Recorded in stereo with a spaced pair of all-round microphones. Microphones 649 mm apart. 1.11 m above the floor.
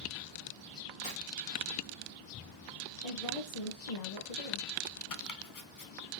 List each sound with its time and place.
1.0 s tearing paper: 80° left, 2.5 m
3.0 s a woman speaking: 65° left (ahead or behind), 1.3 m
5.1 s chopping: 35° left (ahead or behind), 0.5 m